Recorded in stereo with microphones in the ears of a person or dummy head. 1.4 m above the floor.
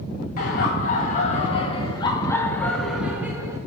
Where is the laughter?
55° left (ahead or behind), 2 m; by 3.6 s 15° right (ahead or behind), 1.4 m.